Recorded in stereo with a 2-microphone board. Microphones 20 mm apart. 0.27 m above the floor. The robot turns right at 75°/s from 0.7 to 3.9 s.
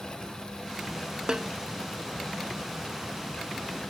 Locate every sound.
1.3 s a snare drum: 35° right (ahead or behind); by 1.5 s 50° right (ahead or behind)